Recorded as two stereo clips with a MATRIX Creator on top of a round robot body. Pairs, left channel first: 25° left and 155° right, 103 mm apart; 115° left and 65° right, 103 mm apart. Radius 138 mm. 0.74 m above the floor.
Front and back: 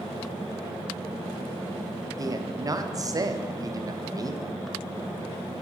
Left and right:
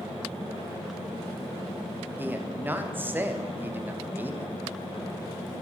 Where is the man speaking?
130° right, 1.0 m.